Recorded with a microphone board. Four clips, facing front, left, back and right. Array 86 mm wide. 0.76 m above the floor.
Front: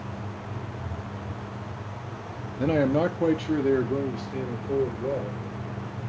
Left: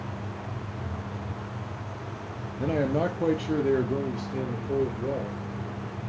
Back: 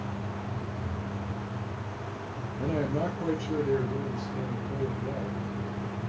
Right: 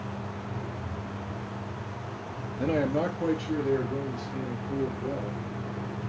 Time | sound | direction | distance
2.6 | a man speaking | 20° right | 0.5 m